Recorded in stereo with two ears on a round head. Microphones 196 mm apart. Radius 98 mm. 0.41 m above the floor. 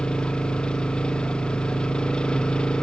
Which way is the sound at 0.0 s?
5° left (ahead or behind).